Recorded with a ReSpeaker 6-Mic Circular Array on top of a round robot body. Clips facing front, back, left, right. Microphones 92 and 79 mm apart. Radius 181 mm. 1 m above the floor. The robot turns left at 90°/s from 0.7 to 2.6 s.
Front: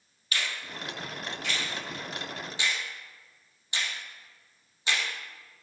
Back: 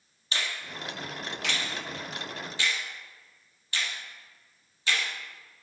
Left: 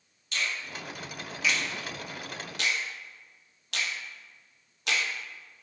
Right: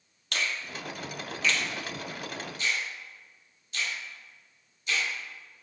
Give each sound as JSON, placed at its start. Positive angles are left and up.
{"t": 0.3, "sound": "a finger snap", "azimuth_deg": -115, "distance_m": 1.5}